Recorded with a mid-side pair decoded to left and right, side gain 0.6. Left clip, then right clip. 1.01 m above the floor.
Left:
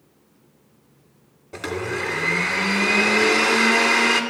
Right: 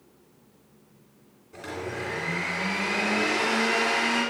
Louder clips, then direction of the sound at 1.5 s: Left 7 dB; 55° left.